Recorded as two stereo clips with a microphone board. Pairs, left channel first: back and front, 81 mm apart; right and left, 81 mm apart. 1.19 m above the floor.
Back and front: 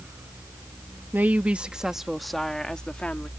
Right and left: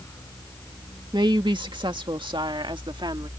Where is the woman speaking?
65° left; by 3.3 s 105° left.